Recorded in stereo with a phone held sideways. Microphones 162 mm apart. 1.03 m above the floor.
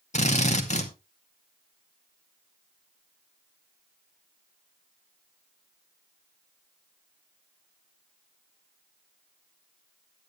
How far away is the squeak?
I don't hear a squeak.